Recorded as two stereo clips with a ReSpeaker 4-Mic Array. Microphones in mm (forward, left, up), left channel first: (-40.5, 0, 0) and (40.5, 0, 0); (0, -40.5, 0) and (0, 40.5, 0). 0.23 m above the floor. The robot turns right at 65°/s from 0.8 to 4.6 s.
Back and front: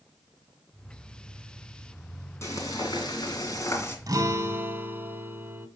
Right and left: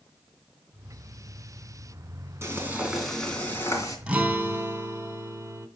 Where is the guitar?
15° left, 1.1 m; by 5.7 s 50° left, 1.1 m.